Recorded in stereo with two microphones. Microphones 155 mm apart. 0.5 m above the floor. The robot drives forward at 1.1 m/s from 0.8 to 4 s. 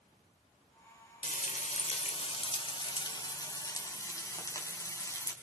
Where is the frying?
60° left (ahead or behind), 1.6 m; by 5.3 s 20° left (ahead or behind), 3.5 m.